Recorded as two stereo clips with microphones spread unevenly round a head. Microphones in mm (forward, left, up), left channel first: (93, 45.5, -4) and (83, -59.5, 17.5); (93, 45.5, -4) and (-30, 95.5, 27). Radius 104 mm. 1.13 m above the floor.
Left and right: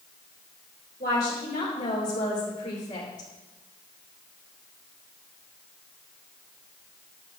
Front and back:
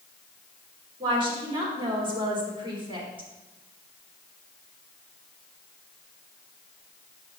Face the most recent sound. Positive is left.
turn(degrees=105)